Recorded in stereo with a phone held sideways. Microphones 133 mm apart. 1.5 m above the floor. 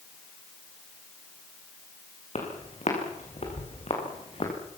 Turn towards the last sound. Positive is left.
turn(degrees=45)  # may be behind; listen again after turning